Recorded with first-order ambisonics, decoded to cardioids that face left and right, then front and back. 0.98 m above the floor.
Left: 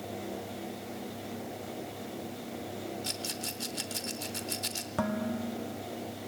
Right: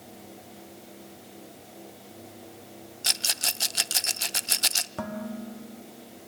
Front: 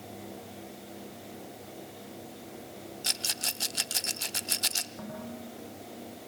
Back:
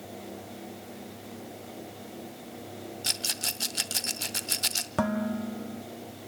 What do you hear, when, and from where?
3.0 s a rattle: 95° right, 0.7 m
5.0 s dishes clattering: 165° left, 1.2 m